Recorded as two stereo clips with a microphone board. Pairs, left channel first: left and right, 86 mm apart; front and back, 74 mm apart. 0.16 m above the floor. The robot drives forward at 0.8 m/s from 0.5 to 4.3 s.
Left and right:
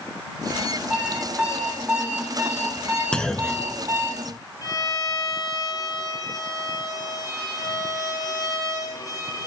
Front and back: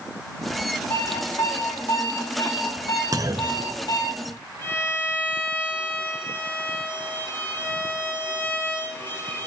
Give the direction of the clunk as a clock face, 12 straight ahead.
6 o'clock.